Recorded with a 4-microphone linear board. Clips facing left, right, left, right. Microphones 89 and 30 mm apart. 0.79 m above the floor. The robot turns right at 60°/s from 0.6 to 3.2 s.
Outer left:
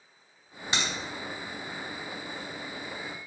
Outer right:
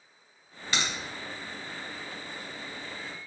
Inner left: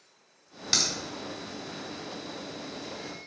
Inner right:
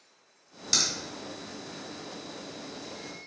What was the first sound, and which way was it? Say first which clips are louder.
A crack: even, inner left 1 dB; 25° left (ahead or behind).